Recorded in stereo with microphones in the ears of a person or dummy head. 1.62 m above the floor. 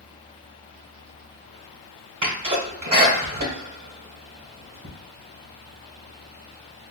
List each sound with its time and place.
2.2 s a sneeze: 45° right (ahead or behind), 1.3 m